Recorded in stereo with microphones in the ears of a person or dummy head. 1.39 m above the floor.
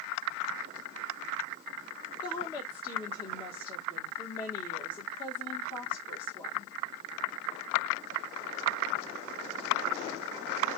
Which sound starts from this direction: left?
A woman speaking, at 2.2 s.